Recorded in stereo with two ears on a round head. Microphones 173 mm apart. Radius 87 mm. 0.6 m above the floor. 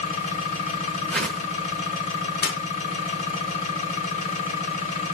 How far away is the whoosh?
About 0.6 m.